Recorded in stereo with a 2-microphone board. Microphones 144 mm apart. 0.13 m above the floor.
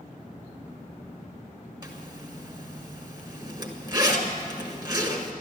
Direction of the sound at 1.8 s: 30° right (ahead or behind).